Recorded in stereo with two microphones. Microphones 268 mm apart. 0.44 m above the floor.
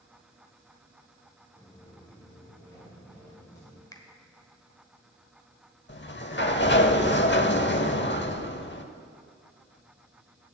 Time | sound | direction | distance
1.6 | footsteps | 10° left (ahead or behind) | 2.5 m
3.9 | a finger snap | 15° left (ahead or behind) | 1.2 m
5.9 | a sliding door | 45° left (ahead or behind) | 0.7 m